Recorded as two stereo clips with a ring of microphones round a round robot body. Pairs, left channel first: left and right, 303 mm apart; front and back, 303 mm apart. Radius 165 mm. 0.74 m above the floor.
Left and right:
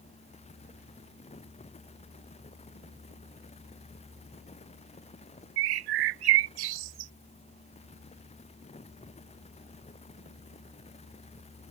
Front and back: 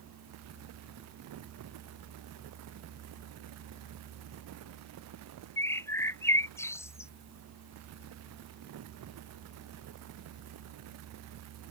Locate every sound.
5.6 s a bird: 80° right